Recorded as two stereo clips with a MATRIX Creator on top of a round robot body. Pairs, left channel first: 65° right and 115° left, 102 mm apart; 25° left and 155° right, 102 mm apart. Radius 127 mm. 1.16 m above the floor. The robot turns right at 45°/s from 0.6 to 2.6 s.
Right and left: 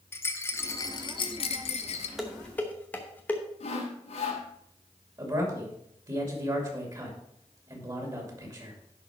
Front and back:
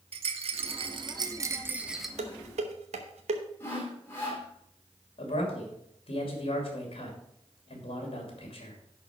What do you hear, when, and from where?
0.1 s a rattle: 135° right, 0.9 m; by 2.1 s 70° right, 0.9 m
2.2 s dishes clattering: 160° right, 0.9 m; by 3.4 s 145° right, 0.9 m
3.6 s sawing: 50° right, 1.9 m
5.2 s a man speaking: 55° left, 2.5 m